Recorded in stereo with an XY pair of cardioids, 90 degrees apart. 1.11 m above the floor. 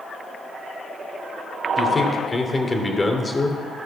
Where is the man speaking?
25° left, 3 m.